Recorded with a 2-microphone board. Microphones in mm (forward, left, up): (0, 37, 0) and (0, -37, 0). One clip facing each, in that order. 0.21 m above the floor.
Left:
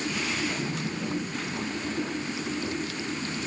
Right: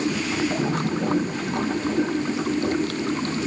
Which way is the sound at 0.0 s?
55° right (ahead or behind).